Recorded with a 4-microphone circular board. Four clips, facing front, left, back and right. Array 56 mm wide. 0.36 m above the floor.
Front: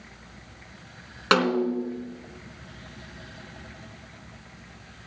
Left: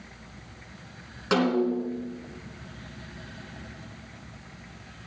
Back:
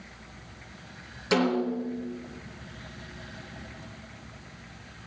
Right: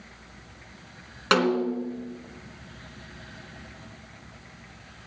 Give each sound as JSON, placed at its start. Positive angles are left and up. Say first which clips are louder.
{"t": 1.3, "sound": "a snare drum", "louder": "right 1 dB, front 3 dB", "azimuth_deg": -30, "distance_m": 2.5}